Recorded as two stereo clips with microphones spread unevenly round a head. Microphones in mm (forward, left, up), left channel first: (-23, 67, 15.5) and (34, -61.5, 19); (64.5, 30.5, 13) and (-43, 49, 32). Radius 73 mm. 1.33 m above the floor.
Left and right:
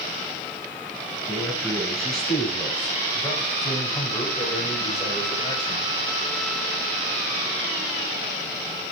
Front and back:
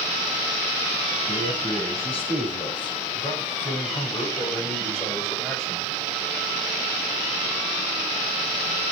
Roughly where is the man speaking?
Ahead.